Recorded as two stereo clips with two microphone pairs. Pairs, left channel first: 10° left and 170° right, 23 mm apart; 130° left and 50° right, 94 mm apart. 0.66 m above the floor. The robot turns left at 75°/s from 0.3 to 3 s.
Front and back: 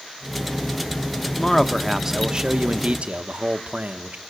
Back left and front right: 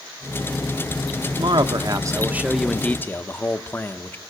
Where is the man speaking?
45° right, 1.0 m; by 4.2 s 170° right, 1.0 m.